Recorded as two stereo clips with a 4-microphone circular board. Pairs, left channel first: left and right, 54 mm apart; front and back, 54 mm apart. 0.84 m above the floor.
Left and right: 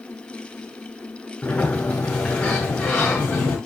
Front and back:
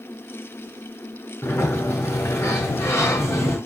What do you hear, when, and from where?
1.4 s a sliding door: 30° left, 5.5 m